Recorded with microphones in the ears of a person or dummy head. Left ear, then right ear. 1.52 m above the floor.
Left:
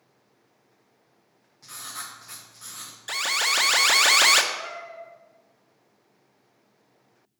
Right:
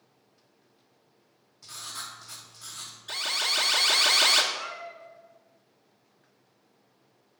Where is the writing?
20° left (ahead or behind), 1.6 m.